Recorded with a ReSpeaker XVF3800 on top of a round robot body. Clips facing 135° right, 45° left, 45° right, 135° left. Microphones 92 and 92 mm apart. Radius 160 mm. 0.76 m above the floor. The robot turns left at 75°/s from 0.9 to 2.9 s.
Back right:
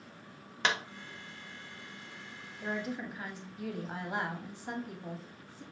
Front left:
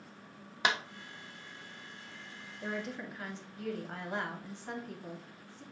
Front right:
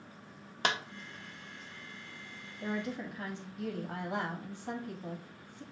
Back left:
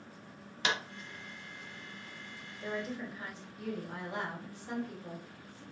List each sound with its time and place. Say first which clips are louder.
0.6 s a clap: even, front right 1 dB; 30° right, 1.0 m
2.6 s a woman speaking: back right 2 dB, front right 1 dB; 35° right, 1.6 m; by 5.6 s 55° right, 1.6 m